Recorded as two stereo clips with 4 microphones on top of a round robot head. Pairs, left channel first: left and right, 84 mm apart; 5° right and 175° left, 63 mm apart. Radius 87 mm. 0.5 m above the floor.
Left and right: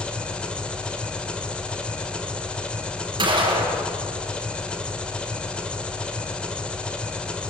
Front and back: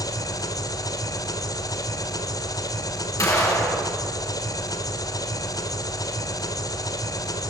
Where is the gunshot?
50° right, 4.5 m.